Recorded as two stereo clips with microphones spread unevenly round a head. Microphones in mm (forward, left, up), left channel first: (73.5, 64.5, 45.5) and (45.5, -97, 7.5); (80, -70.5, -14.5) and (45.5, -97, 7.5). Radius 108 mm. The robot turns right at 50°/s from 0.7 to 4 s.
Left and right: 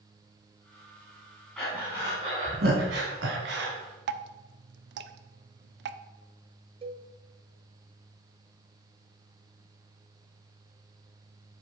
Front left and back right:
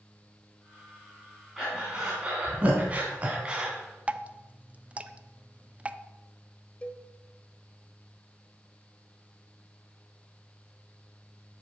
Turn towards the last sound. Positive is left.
turn(degrees=-40)